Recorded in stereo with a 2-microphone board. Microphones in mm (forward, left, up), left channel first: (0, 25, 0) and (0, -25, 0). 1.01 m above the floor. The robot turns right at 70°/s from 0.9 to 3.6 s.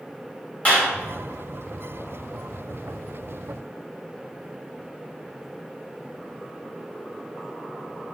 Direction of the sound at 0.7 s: 30° left (ahead or behind).